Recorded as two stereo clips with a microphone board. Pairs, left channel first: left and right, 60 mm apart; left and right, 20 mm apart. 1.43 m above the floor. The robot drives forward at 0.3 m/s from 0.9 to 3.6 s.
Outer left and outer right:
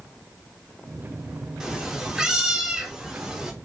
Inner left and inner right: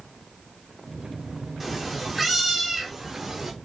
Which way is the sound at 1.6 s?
10° right (ahead or behind).